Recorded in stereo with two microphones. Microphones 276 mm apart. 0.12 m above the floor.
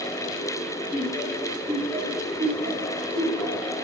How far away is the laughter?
About 1.7 m.